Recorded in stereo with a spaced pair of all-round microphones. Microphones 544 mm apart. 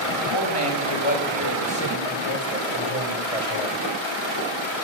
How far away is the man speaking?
About 6 m.